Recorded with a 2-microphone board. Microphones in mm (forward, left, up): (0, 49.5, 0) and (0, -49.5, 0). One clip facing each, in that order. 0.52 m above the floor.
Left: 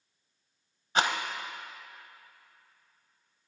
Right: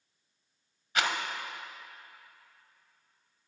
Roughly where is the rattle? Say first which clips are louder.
Left 3 dB; left.